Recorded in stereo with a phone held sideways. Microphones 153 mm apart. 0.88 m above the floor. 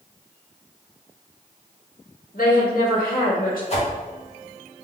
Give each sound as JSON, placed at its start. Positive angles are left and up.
{"t": 2.3, "sound": "a woman speaking", "side_deg": 70, "distance_m": 1.7}
{"t": 3.7, "sound": "a whoosh", "side_deg": 45, "distance_m": 1.3}